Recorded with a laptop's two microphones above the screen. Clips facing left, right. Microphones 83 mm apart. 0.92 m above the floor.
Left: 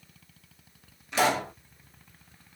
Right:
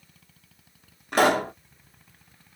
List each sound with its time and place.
1.1 s a pop: 50° right (ahead or behind), 0.7 m